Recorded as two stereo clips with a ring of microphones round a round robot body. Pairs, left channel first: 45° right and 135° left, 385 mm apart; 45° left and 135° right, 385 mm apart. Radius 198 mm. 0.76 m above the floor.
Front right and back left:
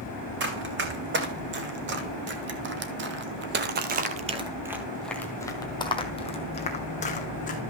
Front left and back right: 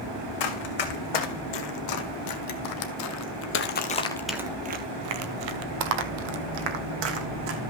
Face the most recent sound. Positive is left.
turn(degrees=-115)